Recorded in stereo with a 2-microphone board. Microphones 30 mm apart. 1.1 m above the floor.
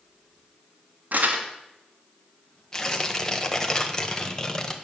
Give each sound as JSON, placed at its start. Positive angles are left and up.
{"t": 1.1, "sound": "crumpling", "side_deg": -65, "distance_m": 2.0}
{"t": 2.7, "sound": "tearing paper", "side_deg": 15, "distance_m": 1.3}